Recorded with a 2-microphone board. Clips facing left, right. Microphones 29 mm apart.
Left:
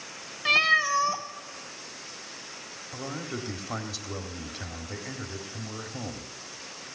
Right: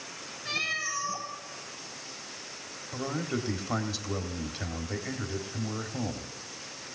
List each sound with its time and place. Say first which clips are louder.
0.5 s a cat meowing: left 10 dB; 70° left (ahead or behind), 1.9 m
2.9 s a man speaking: right 3 dB; 5° right (ahead or behind), 1.7 m